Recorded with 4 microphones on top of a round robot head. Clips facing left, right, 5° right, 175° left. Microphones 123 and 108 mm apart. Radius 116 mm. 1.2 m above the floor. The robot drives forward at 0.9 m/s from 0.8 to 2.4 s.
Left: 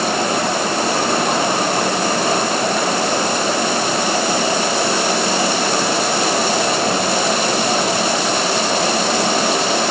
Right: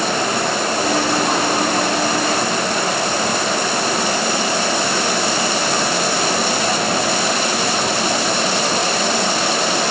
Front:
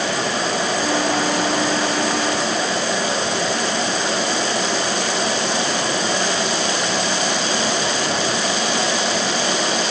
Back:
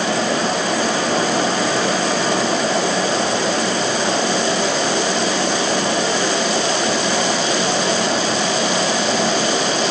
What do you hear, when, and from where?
Only background noise.